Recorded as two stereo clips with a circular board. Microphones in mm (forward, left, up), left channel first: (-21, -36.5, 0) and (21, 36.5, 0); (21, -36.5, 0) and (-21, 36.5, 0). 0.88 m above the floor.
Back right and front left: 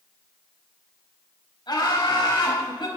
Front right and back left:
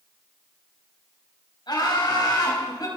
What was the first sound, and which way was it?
Laughter, 90° right.